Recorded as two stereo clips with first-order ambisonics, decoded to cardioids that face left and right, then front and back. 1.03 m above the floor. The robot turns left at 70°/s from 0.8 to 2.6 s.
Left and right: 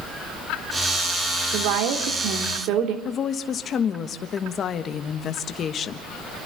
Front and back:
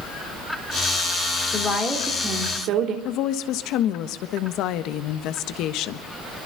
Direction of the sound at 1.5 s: 60° right.